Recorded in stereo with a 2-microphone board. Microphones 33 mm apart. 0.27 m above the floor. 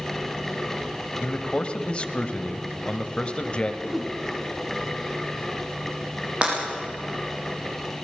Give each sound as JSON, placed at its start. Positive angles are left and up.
{"t": 1.2, "sound": "a man speaking", "side_deg": 30, "distance_m": 1.4}
{"t": 3.8, "sound": "a whoosh", "side_deg": -15, "distance_m": 1.9}
{"t": 6.4, "sound": "breaking glass", "side_deg": -30, "distance_m": 7.0}